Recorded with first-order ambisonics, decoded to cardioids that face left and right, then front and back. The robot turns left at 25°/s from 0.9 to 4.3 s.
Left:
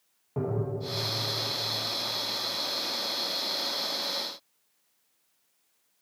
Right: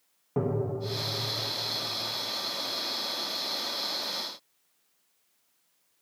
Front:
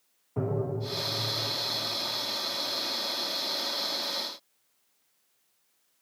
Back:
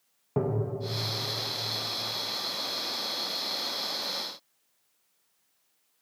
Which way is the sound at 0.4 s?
160° right.